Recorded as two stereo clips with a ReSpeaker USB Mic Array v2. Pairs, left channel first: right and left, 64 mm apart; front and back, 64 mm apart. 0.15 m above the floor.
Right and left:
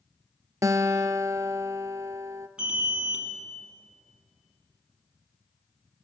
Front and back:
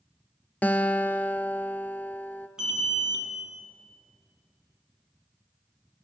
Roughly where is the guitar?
Ahead left.